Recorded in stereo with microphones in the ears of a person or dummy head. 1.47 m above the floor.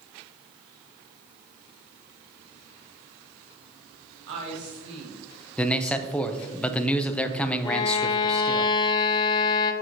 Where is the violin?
25° left (ahead or behind), 0.5 m.